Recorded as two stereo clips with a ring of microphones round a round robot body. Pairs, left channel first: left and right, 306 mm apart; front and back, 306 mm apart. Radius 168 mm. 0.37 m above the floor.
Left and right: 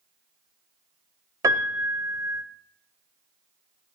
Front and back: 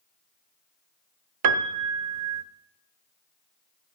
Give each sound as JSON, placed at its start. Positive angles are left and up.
{"t": 1.4, "sound": "a piano", "azimuth_deg": -170, "distance_m": 0.9}